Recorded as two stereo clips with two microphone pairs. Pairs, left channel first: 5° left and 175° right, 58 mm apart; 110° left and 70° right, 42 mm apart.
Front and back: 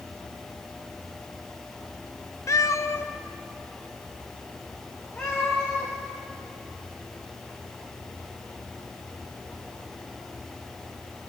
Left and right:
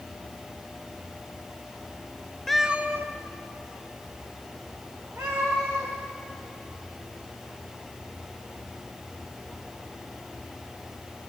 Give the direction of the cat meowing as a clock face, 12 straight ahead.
11 o'clock.